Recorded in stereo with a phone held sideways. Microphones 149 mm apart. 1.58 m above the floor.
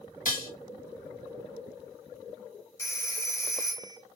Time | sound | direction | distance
0.2 | dishes clattering | 65° left (ahead or behind) | 1.7 m
2.8 | a phone ringing | 20° left (ahead or behind) | 0.9 m